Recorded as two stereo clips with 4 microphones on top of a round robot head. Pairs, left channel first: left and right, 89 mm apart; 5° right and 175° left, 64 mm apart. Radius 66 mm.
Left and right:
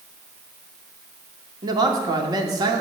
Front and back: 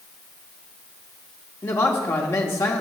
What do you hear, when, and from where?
1.6 s a man speaking: 50° right, 1.3 m